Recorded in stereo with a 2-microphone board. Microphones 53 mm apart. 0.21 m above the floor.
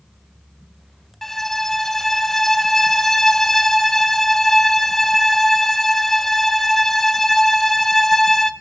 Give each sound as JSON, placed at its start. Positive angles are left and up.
{"t": 1.2, "sound": "a violin", "side_deg": 5, "distance_m": 0.5}